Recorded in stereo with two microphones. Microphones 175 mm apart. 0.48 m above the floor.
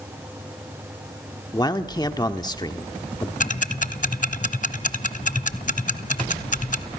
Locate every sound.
1.5 s a man speaking: 25° left (ahead or behind), 1.2 m
3.4 s ticking: 45° left (ahead or behind), 0.8 m